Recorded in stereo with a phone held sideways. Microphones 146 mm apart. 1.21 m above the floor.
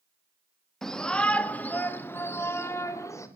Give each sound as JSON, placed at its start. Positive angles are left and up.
{"t": 0.8, "sound": "a shout", "side_deg": 5, "distance_m": 1.8}